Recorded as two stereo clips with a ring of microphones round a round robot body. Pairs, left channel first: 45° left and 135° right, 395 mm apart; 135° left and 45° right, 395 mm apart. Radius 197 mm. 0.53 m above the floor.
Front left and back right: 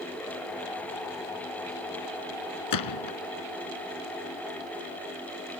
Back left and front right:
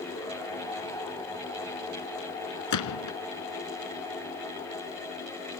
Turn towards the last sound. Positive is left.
turn(degrees=90)